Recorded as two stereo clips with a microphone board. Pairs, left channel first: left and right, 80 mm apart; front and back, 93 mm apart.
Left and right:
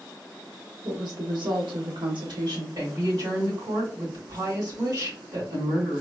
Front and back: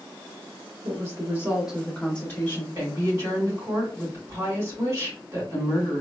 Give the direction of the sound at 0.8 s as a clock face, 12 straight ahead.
4 o'clock.